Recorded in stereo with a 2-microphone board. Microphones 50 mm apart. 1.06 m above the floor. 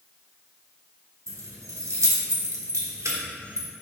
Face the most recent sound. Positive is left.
turn(degrees=-85)